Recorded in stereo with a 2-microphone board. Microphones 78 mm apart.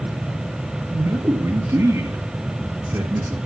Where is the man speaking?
35° right (ahead or behind), 1.7 m.